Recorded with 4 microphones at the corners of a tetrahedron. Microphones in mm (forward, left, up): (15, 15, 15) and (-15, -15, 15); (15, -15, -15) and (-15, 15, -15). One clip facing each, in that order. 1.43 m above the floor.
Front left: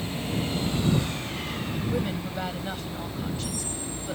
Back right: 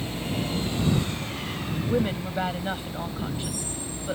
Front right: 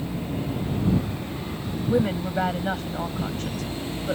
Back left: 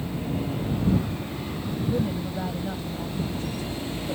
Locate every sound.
1.9 s a woman speaking: 65° right